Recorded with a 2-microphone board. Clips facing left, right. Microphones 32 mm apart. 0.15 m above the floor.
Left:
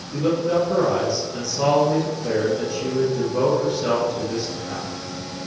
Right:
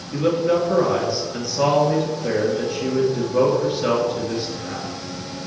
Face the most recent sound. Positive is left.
turn(degrees=-30)  # may be behind; listen again after turning